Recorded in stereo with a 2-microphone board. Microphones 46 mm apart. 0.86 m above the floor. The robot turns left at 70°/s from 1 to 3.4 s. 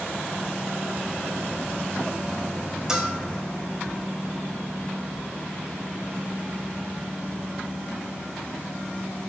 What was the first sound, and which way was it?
A bell, 10° right (ahead or behind).